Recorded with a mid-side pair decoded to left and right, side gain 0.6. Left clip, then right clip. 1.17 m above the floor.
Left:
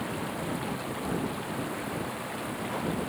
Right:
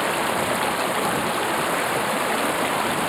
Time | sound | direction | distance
0.0 | running water | 60° right | ?